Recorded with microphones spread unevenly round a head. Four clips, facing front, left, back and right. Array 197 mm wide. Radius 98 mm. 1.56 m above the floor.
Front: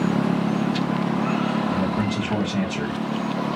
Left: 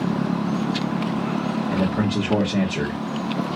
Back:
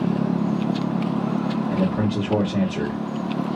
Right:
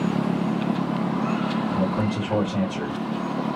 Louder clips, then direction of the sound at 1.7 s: Left 2 dB, back 1 dB; 115° left.